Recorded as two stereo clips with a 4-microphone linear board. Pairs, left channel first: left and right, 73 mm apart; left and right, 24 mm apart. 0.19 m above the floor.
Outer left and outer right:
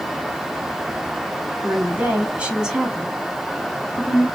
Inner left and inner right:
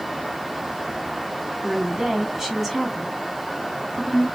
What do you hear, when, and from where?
1.6 s a woman speaking: 30° right (ahead or behind), 1.9 m; by 4.3 s 15° left (ahead or behind), 2.5 m